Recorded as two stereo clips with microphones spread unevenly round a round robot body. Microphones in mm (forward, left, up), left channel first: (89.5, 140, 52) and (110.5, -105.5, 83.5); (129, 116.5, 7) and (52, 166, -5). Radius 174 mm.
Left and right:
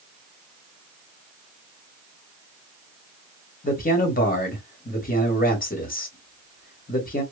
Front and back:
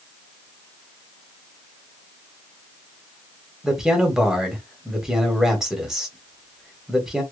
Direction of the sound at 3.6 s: 70° left.